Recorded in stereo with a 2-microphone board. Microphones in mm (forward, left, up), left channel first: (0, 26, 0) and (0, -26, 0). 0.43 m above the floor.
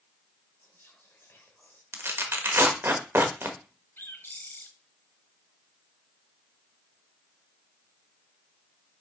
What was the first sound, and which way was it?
Whispering, 50° left (ahead or behind).